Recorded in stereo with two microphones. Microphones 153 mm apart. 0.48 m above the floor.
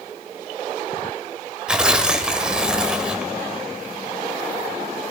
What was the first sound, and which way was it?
Tearing paper, 5° right (ahead or behind).